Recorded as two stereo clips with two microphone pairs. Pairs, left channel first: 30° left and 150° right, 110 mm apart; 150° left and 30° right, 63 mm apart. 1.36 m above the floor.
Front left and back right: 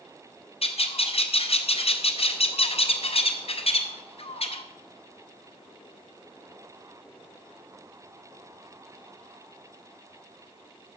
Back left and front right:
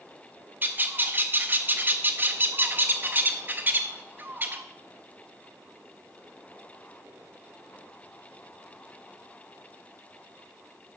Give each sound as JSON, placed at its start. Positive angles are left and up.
{"t": 0.6, "sound": "a bird", "azimuth_deg": 25, "distance_m": 0.6}